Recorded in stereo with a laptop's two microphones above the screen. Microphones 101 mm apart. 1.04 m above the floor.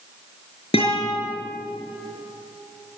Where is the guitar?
80° left, 6 m.